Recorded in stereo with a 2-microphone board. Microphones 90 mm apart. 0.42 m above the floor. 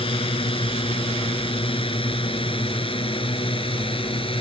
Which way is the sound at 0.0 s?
75° left (ahead or behind).